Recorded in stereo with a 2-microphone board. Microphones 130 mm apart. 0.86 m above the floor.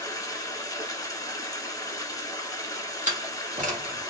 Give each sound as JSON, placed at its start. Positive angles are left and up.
{"t": 0.0, "sound": "running water", "side_deg": 30, "distance_m": 1.1}
{"t": 3.1, "sound": "a door slam", "side_deg": -75, "distance_m": 1.5}